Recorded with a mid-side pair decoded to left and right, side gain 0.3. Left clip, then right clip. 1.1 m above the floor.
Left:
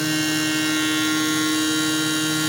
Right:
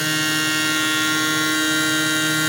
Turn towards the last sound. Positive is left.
turn(degrees=-55)